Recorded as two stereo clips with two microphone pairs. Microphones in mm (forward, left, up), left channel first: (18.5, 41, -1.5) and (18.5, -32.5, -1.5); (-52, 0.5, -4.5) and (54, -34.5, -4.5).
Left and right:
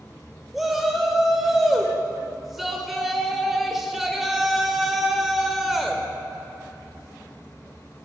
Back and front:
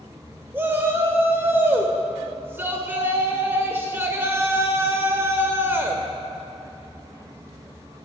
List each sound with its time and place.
0.5 s a shout: 10° right, 1.0 m